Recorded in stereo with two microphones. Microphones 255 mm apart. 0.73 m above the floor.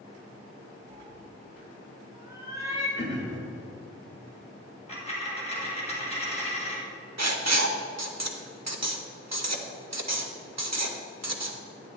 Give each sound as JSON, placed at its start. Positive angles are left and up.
{"t": 0.9, "sound": "a cat meowing", "side_deg": -20, "distance_m": 1.1}
{"t": 3.0, "sound": "throat clearing", "side_deg": 40, "distance_m": 1.7}
{"t": 4.9, "sound": "a dropped coin", "side_deg": 25, "distance_m": 2.0}
{"t": 7.2, "sound": "writing", "side_deg": -75, "distance_m": 0.8}